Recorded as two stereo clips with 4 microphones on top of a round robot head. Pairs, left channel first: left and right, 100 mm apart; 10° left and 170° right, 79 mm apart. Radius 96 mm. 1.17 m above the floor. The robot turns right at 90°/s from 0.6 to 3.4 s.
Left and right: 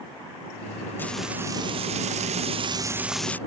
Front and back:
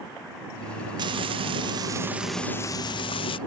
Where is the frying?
160° left; by 3.4 s 15° left.